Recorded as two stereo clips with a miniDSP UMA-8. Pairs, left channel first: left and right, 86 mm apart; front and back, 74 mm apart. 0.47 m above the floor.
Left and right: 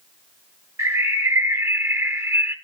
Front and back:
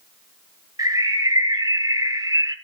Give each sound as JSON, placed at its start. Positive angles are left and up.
{"t": 0.8, "sound": "a bird", "azimuth_deg": -145, "distance_m": 1.2}